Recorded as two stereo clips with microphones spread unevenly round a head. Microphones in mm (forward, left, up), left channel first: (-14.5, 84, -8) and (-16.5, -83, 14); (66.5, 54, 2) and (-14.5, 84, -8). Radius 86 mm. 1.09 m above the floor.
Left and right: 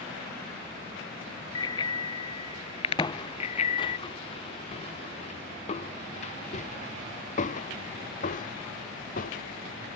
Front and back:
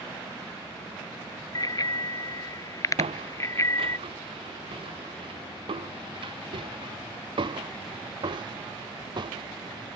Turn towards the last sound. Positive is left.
turn(degrees=130)